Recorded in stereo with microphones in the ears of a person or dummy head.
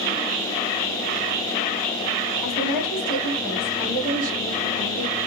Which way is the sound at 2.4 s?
15° left (ahead or behind).